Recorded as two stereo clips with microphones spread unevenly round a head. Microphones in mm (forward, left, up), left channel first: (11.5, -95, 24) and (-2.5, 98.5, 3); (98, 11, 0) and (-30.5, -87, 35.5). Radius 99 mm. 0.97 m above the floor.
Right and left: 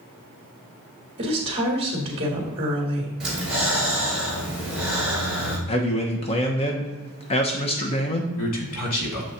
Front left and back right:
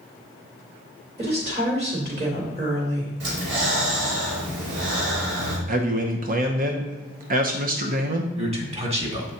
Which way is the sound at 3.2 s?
Straight behind.